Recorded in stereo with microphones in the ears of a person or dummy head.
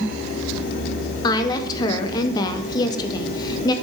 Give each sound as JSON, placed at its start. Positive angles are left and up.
{"t": 1.2, "sound": "a woman speaking", "side_deg": 25, "distance_m": 0.6}